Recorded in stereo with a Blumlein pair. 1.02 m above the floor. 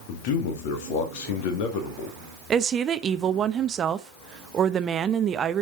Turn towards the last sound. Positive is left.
turn(degrees=-25)